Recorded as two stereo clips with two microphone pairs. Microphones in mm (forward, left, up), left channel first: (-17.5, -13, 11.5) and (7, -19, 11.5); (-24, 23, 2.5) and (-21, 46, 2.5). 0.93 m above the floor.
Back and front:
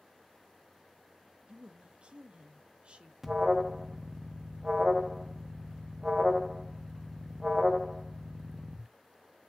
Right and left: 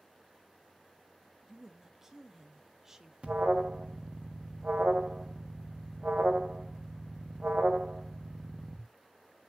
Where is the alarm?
55° left, 1.1 m.